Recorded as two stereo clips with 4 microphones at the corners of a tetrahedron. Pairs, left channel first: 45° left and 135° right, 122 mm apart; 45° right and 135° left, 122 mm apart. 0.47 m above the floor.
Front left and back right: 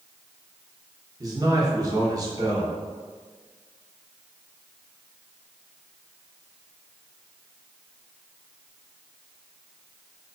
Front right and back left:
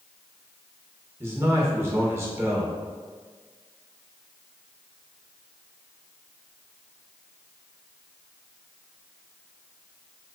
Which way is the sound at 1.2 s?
170° right.